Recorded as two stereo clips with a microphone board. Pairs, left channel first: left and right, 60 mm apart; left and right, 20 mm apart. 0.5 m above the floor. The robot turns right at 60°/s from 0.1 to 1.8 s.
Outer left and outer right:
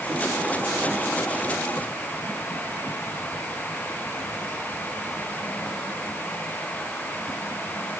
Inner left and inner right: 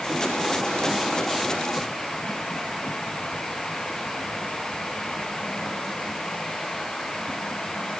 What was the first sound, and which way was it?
Only background noise.